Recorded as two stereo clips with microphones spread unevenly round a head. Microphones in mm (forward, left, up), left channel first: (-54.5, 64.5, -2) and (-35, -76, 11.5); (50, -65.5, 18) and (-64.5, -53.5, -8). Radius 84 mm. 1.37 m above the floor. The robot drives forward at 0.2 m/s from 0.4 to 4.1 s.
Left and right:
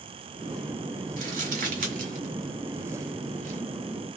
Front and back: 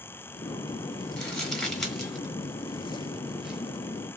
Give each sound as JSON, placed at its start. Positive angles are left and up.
{"t": 1.2, "sound": "crumpling", "azimuth_deg": -80, "distance_m": 2.0}